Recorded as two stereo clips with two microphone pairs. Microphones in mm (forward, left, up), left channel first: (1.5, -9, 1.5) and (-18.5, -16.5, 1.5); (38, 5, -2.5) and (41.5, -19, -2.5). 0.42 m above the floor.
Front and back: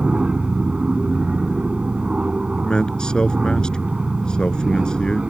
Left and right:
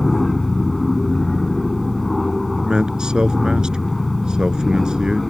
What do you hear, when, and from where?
0.0 s an aircraft: straight behind
2.6 s a man speaking: 30° right